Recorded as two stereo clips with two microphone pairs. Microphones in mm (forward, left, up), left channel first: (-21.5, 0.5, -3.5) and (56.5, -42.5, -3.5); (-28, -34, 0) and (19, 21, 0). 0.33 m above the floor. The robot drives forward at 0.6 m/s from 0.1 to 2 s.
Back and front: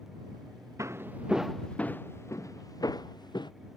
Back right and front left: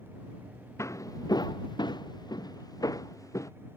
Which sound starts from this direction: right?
Footsteps, at 0.8 s.